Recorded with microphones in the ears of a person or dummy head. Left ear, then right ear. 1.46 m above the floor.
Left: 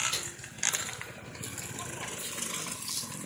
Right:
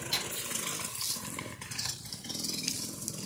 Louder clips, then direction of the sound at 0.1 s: Right 3 dB; 5° right (ahead or behind).